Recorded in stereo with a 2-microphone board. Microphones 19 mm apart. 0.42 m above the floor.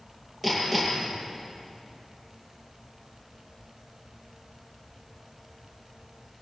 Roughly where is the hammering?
Centre.